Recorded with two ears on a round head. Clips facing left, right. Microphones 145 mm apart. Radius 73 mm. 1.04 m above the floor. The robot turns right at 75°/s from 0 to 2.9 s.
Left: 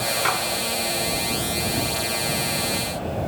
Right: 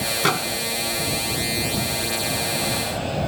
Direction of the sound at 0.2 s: 50° right (ahead or behind).